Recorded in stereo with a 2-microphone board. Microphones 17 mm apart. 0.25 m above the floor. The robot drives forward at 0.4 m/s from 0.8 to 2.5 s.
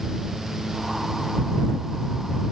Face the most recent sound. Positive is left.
No sound to turn to.